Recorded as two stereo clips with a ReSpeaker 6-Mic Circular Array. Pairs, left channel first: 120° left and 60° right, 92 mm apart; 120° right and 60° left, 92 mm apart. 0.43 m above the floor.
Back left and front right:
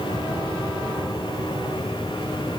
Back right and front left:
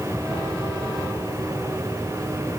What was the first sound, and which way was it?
Only background noise.